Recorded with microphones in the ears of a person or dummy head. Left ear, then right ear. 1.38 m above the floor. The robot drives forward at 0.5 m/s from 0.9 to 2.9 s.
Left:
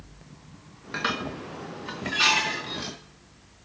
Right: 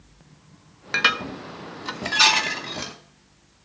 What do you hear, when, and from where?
0.9 s dishes clattering: 35° right (ahead or behind), 0.6 m; by 2.9 s 25° right (ahead or behind), 0.9 m